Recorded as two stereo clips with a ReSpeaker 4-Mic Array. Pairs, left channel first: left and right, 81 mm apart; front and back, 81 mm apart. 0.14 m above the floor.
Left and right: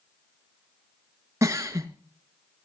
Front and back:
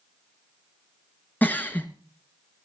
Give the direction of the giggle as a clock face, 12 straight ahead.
2 o'clock.